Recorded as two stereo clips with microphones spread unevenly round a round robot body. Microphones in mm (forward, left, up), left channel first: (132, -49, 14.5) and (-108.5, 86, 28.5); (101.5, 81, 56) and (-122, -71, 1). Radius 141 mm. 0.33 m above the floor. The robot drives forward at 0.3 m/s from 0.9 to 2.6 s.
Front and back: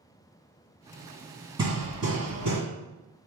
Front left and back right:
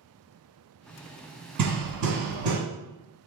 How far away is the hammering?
About 1.8 m.